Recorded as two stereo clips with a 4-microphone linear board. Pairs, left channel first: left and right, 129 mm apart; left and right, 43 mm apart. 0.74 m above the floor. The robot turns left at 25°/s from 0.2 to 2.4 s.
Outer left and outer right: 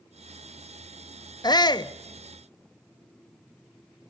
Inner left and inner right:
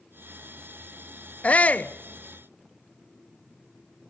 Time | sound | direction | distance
1.4 | a shout | 30° left (ahead or behind) | 0.7 m